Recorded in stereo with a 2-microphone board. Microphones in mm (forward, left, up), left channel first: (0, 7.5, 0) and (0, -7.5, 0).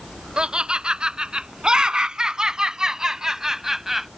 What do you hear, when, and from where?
0.4 s laughter: 65° right (ahead or behind); by 4.1 s 20° right (ahead or behind)